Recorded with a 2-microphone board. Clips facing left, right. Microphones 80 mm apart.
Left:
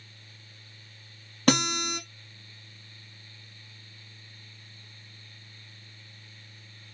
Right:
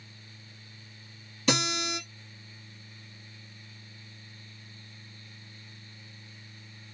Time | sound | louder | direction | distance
1.5 | a guitar | left 4 dB | 60° left (ahead or behind) | 1.8 m